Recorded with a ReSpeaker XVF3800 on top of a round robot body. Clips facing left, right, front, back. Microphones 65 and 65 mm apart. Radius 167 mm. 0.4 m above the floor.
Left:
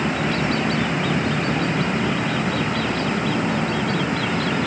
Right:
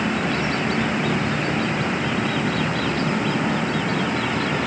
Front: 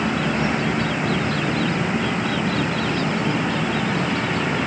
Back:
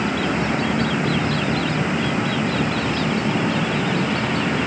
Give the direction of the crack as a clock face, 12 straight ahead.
No crack in this recording.